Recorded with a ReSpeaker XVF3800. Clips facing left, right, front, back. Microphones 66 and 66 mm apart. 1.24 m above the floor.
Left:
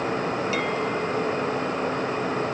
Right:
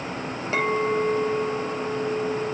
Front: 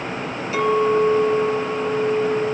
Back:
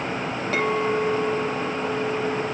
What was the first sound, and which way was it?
A clink, 145° right.